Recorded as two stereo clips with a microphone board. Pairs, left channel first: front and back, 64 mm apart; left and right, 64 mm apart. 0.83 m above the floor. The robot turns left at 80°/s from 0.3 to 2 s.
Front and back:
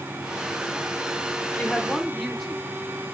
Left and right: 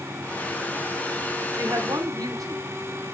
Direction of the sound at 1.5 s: 55° right.